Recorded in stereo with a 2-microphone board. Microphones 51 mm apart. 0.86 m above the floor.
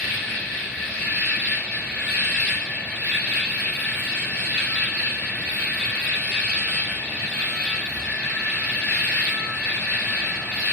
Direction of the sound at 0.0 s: 25° left (ahead or behind).